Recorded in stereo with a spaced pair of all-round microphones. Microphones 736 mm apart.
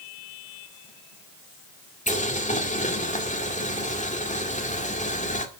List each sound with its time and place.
2.1 s boiling: 10° left (ahead or behind), 2 m